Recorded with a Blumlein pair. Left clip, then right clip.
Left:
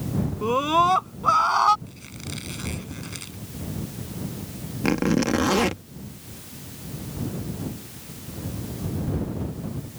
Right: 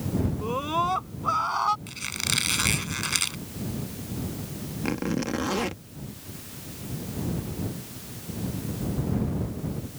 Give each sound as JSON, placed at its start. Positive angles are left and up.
{"t": 0.4, "sound": "a scream", "azimuth_deg": 20}
{"t": 1.9, "sound": "a squeak", "azimuth_deg": -60}
{"t": 4.8, "sound": "a zipper", "azimuth_deg": 20}